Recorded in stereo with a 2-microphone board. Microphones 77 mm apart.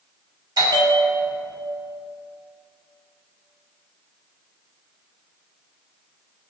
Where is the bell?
65° right (ahead or behind), 3 m.